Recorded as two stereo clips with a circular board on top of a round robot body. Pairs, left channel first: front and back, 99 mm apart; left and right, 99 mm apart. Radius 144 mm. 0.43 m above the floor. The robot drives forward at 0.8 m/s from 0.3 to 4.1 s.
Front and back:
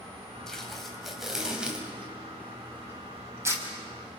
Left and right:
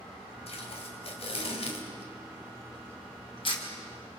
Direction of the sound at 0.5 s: 85° left.